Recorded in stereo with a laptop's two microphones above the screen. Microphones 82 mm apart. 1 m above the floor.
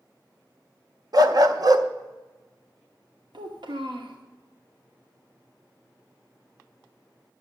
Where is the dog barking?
55° right (ahead or behind), 0.7 m.